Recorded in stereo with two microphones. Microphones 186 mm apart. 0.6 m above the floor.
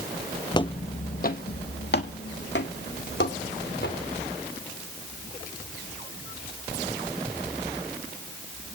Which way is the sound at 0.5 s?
25° left (ahead or behind).